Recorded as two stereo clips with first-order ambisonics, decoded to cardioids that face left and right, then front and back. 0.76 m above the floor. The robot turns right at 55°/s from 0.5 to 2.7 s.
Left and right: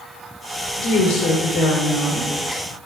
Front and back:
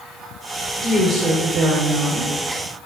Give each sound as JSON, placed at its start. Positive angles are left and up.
{"t": 0.8, "sound": "a woman speaking", "azimuth_deg": 90, "distance_m": 2.5}